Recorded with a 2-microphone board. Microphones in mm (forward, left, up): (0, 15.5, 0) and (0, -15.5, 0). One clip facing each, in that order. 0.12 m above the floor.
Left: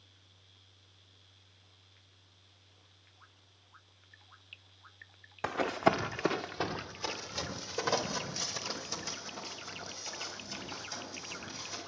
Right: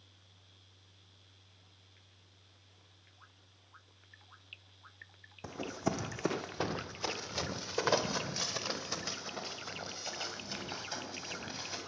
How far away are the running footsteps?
About 0.6 m.